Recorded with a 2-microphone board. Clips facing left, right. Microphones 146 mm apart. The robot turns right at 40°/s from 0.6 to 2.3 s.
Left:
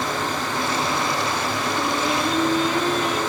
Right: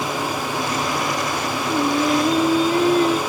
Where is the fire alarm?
No fire alarm in this recording.